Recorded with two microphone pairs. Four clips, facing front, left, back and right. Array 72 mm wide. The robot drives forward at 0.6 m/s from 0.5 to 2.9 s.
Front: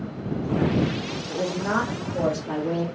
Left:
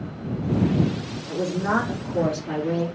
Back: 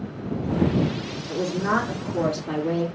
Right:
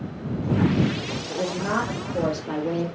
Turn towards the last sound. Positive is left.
turn(degrees=170)